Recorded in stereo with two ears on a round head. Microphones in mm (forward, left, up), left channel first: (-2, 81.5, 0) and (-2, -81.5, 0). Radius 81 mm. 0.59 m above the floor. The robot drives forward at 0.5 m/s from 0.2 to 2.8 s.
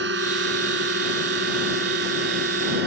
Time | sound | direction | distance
0.0 | a drone | 70° right (ahead or behind) | ?